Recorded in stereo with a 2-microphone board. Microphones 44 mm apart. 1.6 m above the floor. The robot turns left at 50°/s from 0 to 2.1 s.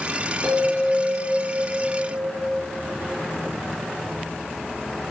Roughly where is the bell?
Right.